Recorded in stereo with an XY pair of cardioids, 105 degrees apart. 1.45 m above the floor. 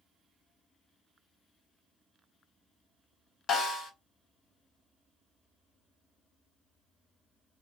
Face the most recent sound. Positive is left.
turn(degrees=65)